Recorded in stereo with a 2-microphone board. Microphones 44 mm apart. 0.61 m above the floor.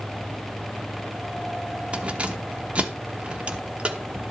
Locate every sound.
1.9 s keys jangling: 30° right (ahead or behind), 0.9 m